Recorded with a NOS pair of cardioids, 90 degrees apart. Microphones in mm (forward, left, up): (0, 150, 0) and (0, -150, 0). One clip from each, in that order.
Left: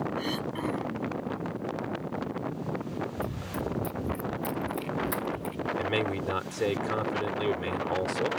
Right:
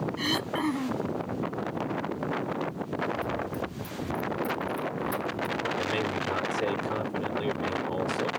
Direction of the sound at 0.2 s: 45° right.